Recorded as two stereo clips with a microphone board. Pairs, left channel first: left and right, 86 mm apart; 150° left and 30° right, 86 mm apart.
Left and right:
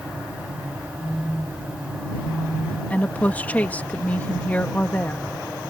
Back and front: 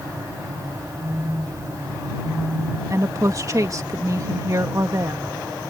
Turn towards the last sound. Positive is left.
turn(degrees=20)